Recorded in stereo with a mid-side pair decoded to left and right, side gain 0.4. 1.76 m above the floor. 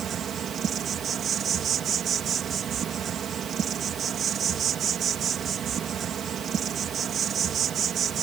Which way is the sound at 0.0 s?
65° right.